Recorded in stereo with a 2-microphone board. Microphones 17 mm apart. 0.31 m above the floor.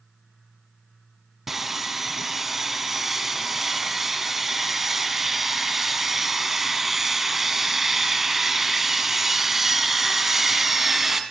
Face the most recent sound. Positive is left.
turn(degrees=-20)  # may be behind; listen again after turning